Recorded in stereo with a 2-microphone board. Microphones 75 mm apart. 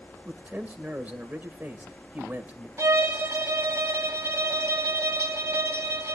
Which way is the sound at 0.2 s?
20° right (ahead or behind).